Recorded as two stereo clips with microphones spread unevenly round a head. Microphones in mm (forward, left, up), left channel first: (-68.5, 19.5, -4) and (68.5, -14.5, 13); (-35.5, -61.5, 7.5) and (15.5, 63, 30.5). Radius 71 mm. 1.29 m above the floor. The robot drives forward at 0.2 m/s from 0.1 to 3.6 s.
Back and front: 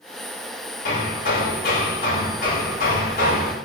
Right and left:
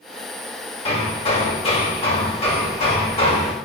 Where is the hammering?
160° right, 4.5 m.